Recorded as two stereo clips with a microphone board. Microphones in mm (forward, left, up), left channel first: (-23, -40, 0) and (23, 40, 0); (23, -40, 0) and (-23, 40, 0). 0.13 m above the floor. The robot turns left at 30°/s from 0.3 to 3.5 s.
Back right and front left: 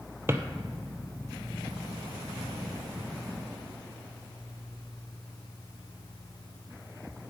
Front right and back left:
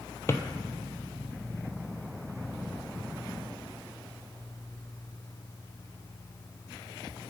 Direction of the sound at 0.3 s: Straight ahead.